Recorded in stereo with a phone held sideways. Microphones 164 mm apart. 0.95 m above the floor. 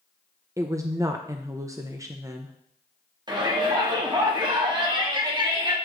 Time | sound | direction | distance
0.6 | a woman speaking | 20° right (ahead or behind) | 0.5 m
3.3 | a shout | 25° right (ahead or behind) | 1.5 m